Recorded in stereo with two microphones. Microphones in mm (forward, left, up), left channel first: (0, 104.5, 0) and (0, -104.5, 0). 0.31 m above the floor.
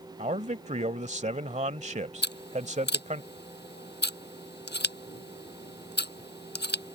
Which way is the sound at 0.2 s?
35° right (ahead or behind).